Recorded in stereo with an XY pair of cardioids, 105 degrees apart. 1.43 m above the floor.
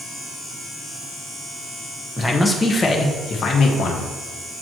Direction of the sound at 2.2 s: 5° left.